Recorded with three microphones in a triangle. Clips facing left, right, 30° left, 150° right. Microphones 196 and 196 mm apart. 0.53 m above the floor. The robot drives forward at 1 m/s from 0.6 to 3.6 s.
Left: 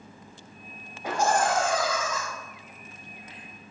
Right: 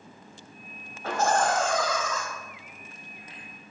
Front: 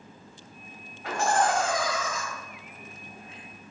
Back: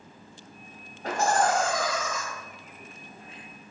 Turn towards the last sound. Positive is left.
turn(degrees=175)